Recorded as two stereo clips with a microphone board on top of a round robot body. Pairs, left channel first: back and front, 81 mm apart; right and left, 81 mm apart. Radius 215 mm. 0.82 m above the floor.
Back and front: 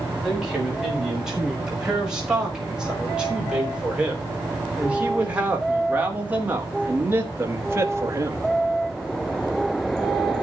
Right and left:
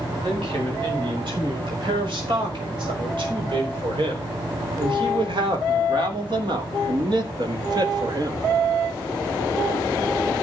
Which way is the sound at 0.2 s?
85° left.